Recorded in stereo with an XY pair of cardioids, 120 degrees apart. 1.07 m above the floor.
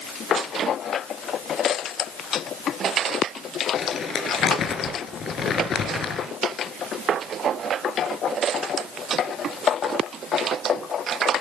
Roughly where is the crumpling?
Ahead left.